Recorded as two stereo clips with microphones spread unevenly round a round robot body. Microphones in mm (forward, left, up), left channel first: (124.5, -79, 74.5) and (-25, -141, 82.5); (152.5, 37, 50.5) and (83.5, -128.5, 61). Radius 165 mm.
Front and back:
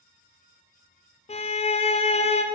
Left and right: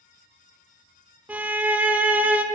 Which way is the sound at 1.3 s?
30° right.